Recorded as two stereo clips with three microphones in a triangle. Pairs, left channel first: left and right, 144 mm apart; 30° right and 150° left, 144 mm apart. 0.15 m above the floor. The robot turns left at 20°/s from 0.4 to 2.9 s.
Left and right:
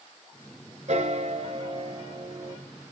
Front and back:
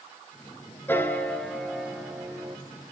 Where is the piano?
100° right, 1.2 m; by 2.6 s 135° right, 1.2 m.